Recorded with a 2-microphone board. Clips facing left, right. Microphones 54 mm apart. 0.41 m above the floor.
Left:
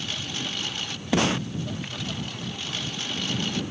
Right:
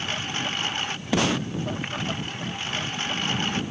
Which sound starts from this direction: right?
A lawn mower, at 0.0 s.